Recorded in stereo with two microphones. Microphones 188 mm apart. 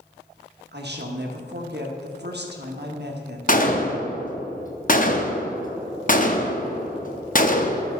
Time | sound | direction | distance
0.7 | a woman speaking | 65° right (ahead or behind) | 1.2 m
3.5 | a gunshot | 45° left (ahead or behind) | 0.7 m